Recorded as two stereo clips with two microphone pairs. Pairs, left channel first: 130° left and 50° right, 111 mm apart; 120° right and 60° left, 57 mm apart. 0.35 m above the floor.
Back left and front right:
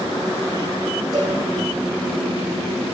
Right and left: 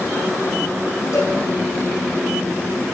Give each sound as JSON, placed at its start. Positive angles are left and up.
{"t": 1.1, "sound": "a cowbell", "azimuth_deg": -100, "distance_m": 6.0}